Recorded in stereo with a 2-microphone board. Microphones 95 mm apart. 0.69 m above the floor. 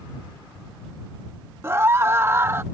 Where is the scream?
25° right (ahead or behind).